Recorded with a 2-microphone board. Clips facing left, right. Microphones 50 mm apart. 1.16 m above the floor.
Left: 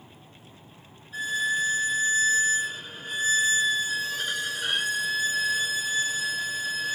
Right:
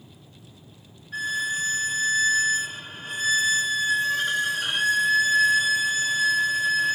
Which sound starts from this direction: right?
A violin, at 1.1 s.